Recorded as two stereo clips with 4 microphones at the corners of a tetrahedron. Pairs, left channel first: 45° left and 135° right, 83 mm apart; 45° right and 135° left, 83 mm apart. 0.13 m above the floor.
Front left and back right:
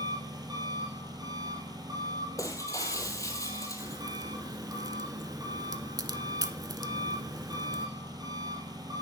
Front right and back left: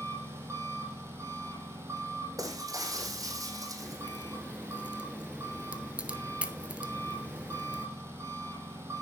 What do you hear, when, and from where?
0.0 s an engine running: 170° right, 2.5 m
2.4 s breaking glass: 90° left, 1.6 m
3.8 s a crack: 155° right, 0.7 m